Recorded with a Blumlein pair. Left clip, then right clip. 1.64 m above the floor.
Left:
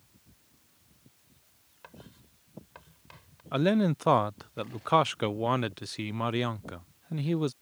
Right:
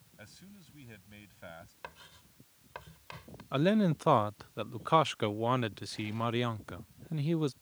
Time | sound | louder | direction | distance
0.2 | a man speaking | right 11 dB | 45° right | ?
1.8 | writing | even | 15° right | ?
3.5 | a man speaking | left 2 dB | 10° left | ?